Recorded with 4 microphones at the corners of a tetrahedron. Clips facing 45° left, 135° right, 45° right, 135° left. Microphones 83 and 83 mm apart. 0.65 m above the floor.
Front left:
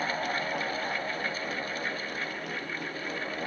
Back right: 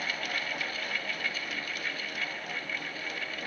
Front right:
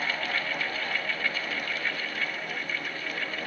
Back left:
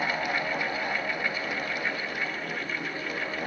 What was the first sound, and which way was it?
Only background noise.